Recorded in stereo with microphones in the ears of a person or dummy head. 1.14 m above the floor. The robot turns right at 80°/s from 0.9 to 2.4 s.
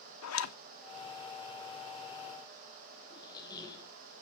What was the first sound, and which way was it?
A zipper, 75° left (ahead or behind).